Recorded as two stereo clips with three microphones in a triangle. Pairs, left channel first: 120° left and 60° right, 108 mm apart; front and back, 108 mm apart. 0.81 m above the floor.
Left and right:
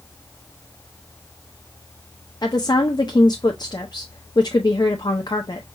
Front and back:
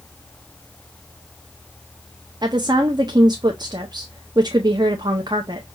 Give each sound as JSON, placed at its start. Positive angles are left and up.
{"t": 2.4, "sound": "a woman speaking", "azimuth_deg": 150, "distance_m": 0.5}